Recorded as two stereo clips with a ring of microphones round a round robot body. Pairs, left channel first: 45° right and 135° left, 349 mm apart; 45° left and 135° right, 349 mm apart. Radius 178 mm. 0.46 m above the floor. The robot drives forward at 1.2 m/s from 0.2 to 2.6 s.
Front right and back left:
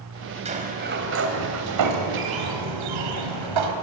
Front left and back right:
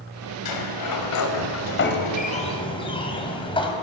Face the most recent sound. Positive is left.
turn(degrees=120)